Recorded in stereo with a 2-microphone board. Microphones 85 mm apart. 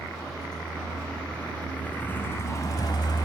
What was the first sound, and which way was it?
A vehicle, 5° left (ahead or behind).